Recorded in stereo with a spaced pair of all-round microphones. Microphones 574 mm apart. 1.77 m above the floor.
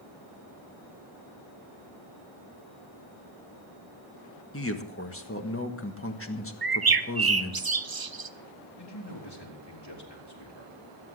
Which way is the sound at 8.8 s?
40° left (ahead or behind).